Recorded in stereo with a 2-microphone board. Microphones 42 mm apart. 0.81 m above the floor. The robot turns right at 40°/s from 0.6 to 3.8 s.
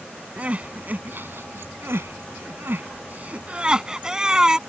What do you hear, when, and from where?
0.4 s crying: 35° right (ahead or behind); by 4.6 s 15° right (ahead or behind)